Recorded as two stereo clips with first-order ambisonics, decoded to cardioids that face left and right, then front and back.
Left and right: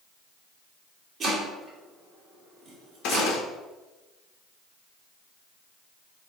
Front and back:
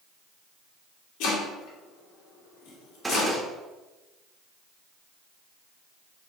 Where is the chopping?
20° right, 2 m.